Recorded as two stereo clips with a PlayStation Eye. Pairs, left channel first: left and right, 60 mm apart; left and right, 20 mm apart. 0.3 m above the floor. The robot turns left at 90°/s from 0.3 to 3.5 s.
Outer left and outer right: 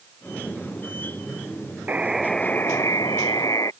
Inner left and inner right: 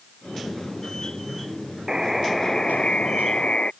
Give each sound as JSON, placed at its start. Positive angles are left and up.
{"t": 1.9, "sound": "a buzzer", "azimuth_deg": -150}